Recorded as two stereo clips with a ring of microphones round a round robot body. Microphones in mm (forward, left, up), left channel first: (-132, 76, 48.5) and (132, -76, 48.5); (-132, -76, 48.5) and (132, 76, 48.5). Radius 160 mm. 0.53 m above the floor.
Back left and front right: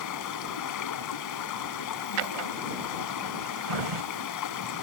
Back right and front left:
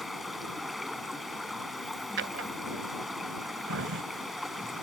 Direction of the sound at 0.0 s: 120° left.